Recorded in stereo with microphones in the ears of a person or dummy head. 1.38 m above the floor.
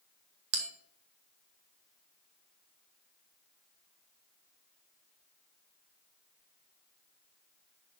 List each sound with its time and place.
0.5 s a bell: 70° right (ahead or behind), 1.2 m